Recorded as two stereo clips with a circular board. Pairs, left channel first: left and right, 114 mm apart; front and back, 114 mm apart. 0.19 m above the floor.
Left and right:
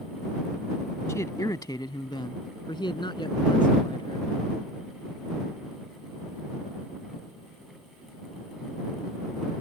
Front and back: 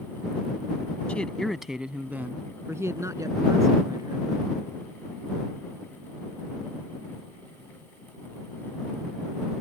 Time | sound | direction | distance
1.1 | a man speaking | 65° left | ?